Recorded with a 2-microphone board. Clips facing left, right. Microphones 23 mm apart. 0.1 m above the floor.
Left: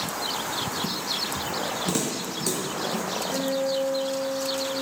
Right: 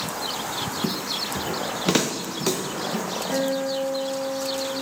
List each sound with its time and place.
0.8 s footsteps: 75° right (ahead or behind), 0.7 m; by 3.0 s 30° right (ahead or behind), 2.5 m
3.3 s a guitar: 70° right (ahead or behind), 6.5 m